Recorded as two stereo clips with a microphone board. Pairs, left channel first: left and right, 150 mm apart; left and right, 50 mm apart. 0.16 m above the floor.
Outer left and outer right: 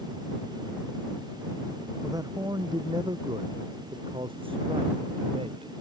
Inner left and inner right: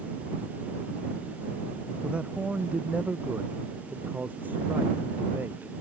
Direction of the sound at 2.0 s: 20° right (ahead or behind).